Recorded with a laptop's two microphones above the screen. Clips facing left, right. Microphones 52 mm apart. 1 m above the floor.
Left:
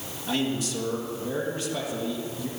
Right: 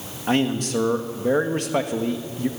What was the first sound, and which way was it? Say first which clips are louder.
A man speaking: right 6 dB; 50° right (ahead or behind).